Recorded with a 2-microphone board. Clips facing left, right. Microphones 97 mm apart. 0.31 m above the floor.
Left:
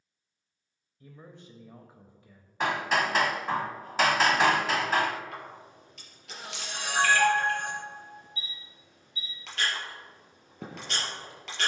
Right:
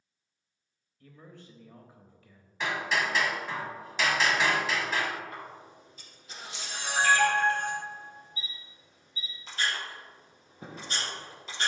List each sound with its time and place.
1.0 s a man speaking: 20° left (ahead or behind), 1.0 m
2.6 s hammering: 50° left (ahead or behind), 0.8 m
5.3 s a camera shutter: 75° left (ahead or behind), 3.5 m